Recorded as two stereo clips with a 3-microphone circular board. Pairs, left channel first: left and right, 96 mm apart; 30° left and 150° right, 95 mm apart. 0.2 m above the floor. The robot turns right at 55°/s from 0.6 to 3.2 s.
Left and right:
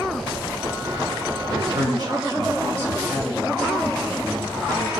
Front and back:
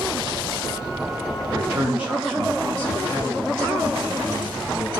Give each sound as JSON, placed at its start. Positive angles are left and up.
{"t": 1.5, "sound": "a man speaking", "azimuth_deg": -105, "distance_m": 2.0}